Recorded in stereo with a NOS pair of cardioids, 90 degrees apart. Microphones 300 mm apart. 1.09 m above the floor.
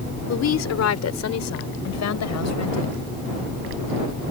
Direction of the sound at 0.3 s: 60° left.